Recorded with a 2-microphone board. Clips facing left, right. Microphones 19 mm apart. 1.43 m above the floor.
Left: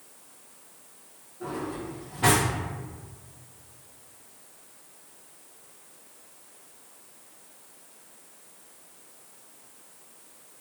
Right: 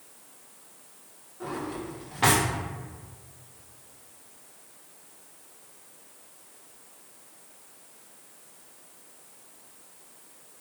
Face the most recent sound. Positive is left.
turn(degrees=-55)  # may be behind; listen again after turning